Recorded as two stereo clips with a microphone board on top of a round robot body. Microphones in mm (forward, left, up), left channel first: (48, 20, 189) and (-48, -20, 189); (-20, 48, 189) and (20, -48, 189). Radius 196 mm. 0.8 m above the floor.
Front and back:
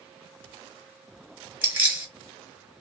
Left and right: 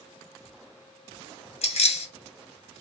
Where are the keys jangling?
130° left, 1.0 m.